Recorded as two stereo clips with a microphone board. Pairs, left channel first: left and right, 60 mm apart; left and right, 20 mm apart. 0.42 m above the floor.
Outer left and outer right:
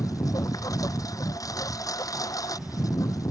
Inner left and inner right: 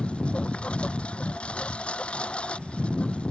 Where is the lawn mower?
75° left (ahead or behind).